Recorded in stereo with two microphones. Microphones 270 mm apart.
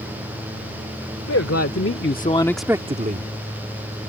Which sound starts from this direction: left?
A man speaking, at 1.3 s.